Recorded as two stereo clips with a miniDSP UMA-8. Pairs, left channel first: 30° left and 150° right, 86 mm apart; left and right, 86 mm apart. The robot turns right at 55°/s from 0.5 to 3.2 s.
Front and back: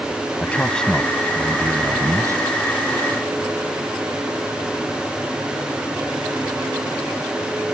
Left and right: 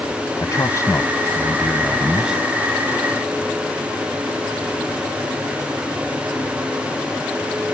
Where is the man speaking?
95° left; by 2.4 s 160° right.